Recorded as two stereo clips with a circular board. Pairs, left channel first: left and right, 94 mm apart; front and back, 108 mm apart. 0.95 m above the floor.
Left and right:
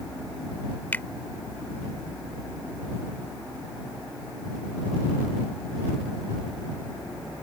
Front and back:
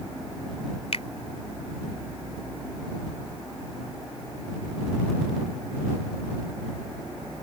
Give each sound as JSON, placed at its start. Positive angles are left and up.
{"t": 0.9, "sound": "a finger snap", "azimuth_deg": 20}